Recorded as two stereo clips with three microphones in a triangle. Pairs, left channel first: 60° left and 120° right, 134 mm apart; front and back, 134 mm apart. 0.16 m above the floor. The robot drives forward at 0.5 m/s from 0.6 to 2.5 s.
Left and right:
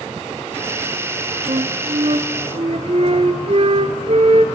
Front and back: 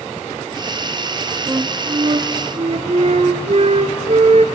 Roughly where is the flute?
Behind right.